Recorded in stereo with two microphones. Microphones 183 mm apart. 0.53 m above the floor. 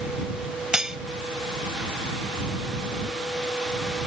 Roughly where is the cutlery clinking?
Centre.